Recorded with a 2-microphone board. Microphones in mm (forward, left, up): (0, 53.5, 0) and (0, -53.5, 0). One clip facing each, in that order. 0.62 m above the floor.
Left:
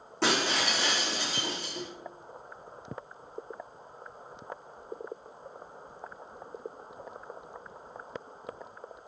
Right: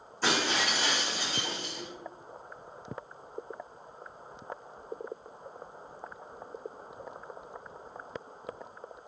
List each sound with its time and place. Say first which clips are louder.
0.2 s breaking glass: left 1 dB; 80° left, 3 m